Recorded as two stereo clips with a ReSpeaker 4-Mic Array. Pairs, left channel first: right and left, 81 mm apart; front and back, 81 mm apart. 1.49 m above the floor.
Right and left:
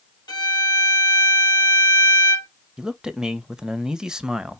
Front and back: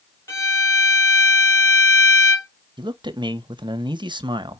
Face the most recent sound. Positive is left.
turn(degrees=170)